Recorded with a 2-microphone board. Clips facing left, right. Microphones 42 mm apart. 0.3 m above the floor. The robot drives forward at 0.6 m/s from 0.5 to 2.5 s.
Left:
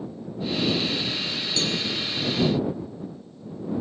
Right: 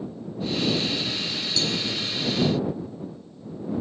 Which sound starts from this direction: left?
A cowbell, at 1.6 s.